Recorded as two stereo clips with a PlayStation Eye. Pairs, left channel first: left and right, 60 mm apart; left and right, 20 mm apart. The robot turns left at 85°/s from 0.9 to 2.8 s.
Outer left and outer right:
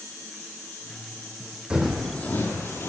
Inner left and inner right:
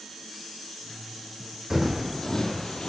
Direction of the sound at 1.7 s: 15° right (ahead or behind).